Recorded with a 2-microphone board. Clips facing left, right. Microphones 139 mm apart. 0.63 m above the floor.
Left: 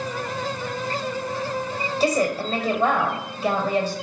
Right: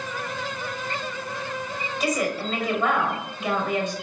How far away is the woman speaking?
About 3 m.